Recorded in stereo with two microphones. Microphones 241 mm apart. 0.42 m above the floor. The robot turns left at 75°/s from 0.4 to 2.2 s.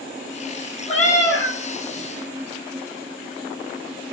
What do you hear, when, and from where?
0.9 s a cat meowing: 155° left, 0.9 m; by 1.6 s 105° left, 0.9 m